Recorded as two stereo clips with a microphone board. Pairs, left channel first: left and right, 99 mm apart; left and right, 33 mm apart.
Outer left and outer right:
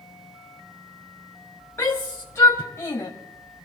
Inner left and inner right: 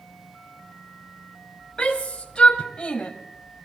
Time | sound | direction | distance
1.8 | a shout | 25° left (ahead or behind) | 2 m